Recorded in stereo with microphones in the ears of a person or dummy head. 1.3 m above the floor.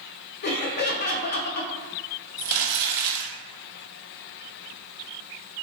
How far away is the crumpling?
About 0.8 m.